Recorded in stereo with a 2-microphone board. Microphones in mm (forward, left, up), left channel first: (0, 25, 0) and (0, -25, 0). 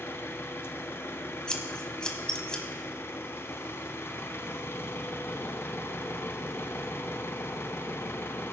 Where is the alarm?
I don't hear an alarm.